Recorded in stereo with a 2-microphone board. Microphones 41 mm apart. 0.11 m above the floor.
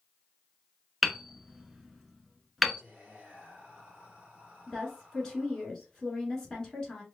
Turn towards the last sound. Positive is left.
turn(degrees=15)  # may be behind; listen again after turning